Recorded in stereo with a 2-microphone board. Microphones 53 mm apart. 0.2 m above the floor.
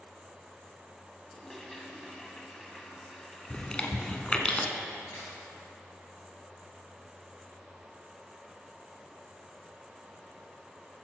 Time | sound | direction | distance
1.2 | a toilet flushing | 10° left (ahead or behind) | 1.2 m
3.5 | chewing | 20° left (ahead or behind) | 0.9 m
5.1 | a crack | 65° left (ahead or behind) | 3 m